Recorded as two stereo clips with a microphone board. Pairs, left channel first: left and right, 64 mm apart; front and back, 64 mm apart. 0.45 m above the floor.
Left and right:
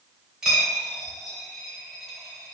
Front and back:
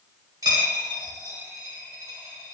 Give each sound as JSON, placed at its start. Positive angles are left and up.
{"t": 0.4, "sound": "a dropped coin", "azimuth_deg": -175, "distance_m": 0.8}